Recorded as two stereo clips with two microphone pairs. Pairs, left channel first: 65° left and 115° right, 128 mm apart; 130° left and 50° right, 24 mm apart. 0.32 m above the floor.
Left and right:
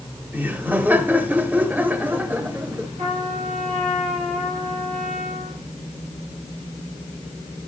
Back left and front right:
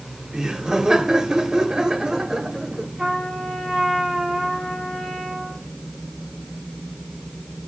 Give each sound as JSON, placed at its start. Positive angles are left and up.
{"t": 0.3, "sound": "laughter", "azimuth_deg": -55, "distance_m": 1.2}
{"t": 3.0, "sound": "a trumpet", "azimuth_deg": -125, "distance_m": 7.5}